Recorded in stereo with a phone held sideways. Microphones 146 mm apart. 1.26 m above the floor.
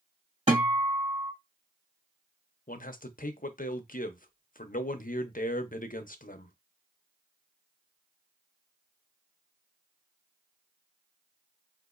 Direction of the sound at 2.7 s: 70° left (ahead or behind).